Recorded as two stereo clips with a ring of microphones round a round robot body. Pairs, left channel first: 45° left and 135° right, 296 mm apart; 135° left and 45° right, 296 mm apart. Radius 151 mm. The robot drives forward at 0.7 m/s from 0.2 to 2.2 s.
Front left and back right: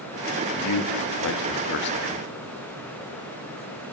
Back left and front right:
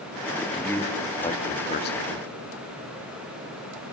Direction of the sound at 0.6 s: 50° left.